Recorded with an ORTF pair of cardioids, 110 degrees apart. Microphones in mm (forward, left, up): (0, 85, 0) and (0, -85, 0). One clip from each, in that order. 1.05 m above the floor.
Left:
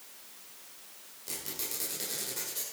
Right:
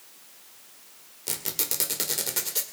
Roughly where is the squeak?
Ahead right.